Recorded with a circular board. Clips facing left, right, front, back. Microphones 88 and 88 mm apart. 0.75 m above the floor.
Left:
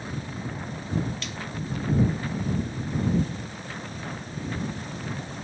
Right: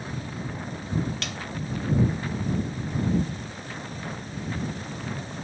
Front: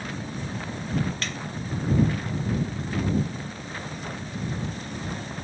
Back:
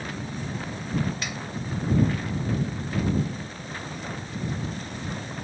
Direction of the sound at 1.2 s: 100° right.